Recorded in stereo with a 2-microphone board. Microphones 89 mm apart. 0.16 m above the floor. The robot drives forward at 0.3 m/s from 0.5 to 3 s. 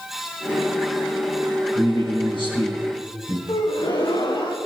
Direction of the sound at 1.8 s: 75° left (ahead or behind).